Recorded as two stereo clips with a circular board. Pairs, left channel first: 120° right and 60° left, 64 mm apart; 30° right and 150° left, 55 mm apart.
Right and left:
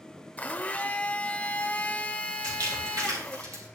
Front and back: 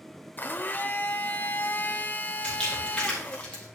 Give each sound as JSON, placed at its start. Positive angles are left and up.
{"t": 0.4, "sound": "a blender", "azimuth_deg": -65, "distance_m": 0.6}
{"t": 2.4, "sound": "crumpling", "azimuth_deg": 40, "distance_m": 5.0}